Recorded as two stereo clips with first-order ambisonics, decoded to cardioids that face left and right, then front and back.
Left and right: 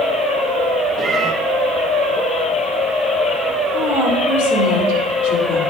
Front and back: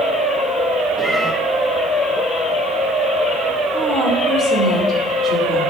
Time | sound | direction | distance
1.0 | a cat meowing | 105° right | 0.9 m
3.7 | a woman speaking | 90° left | 4 m